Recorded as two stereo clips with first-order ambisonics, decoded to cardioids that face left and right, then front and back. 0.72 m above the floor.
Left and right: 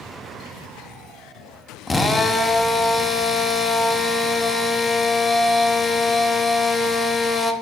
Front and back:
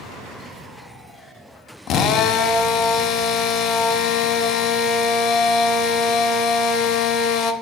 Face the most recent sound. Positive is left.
turn(degrees=15)